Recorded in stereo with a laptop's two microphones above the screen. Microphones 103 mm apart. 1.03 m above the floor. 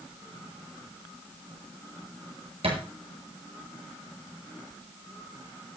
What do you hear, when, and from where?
2.6 s a thud: 75° right (ahead or behind), 7 m